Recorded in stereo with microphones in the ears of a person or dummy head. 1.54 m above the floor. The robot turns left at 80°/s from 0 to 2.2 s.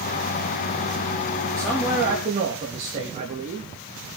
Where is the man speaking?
15° left, 3.5 m; by 3.7 s 35° right, 3.5 m.